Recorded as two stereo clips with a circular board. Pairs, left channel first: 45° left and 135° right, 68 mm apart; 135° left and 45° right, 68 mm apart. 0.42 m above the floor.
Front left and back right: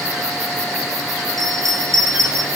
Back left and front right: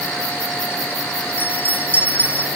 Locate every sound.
1.4 s a bell: 165° right, 1.3 m